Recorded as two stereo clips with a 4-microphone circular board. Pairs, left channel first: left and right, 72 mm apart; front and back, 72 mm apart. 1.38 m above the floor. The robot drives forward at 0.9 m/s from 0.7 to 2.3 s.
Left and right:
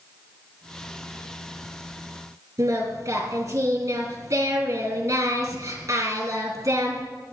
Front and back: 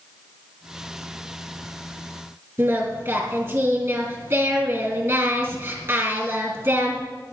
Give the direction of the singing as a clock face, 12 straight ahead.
4 o'clock.